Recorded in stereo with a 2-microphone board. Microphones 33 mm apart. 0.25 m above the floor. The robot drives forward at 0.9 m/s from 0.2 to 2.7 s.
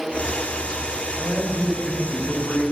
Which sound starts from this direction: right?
A man speaking, at 1.2 s.